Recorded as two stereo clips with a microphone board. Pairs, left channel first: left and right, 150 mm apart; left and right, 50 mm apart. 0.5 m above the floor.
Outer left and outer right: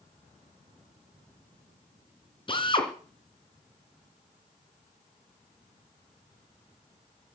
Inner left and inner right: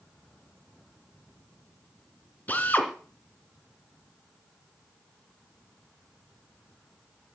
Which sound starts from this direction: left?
A drill, at 2.5 s.